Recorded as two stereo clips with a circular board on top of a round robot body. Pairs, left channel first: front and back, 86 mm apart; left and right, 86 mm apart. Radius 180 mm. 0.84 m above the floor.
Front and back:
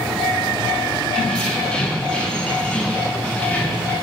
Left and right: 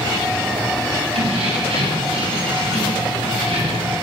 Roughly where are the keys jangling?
Right.